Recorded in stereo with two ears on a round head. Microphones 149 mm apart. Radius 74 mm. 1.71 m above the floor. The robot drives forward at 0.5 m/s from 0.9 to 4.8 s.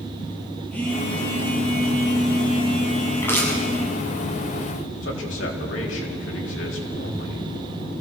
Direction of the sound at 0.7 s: 10° left (ahead or behind).